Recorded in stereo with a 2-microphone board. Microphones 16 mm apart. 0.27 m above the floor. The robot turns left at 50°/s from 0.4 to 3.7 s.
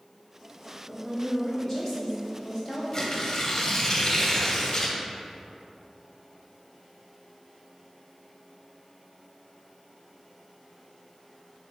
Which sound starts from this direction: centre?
A woman speaking, at 0.9 s.